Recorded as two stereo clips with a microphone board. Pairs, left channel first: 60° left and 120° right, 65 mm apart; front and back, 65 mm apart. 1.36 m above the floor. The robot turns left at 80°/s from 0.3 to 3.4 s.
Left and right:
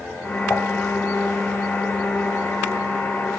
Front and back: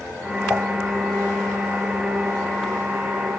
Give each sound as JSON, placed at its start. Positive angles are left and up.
{"t": 0.5, "sound": "dishes clattering", "azimuth_deg": 110, "distance_m": 3.5}